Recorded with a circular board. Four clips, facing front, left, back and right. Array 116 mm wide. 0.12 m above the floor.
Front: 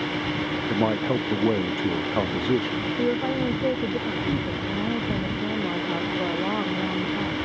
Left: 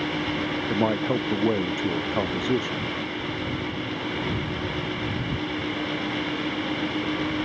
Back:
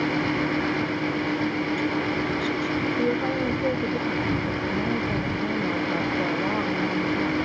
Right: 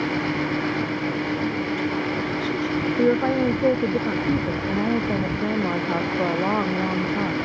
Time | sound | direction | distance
0.7 | a man speaking | 45° left | ?
3.0 | a woman speaking | 85° right | ?